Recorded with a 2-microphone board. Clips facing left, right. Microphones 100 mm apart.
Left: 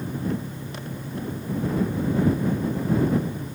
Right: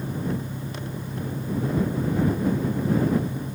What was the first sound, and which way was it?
An engine running, 10° right (ahead or behind).